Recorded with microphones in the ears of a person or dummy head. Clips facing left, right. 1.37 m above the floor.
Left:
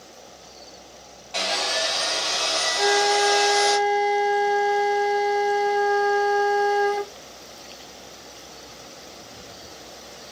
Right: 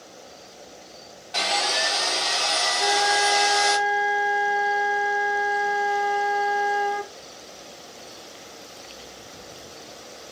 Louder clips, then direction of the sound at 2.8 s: Left 4 dB; 75° left (ahead or behind).